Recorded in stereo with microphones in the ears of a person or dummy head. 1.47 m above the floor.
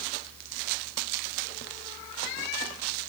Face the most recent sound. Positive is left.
No sound to turn to.